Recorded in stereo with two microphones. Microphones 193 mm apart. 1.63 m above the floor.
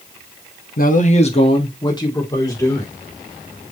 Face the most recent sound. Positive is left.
turn(degrees=15)  # may be behind; listen again after turning